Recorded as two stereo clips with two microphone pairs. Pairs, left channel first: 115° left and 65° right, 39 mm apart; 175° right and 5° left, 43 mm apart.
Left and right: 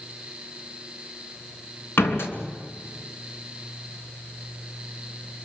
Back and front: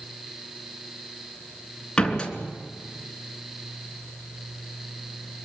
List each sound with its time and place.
2.0 s a door slam: 115° left, 3 m